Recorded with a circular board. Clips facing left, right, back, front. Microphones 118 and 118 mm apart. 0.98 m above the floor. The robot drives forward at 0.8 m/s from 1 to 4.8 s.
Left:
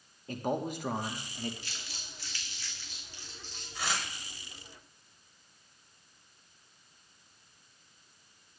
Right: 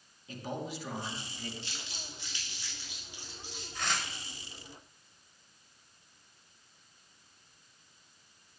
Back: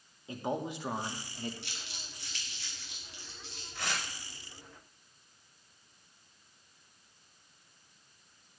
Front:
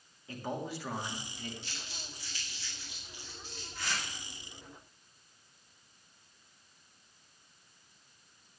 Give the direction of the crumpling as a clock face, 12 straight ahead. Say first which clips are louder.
Right 2 dB, front 1 dB; 5 o'clock.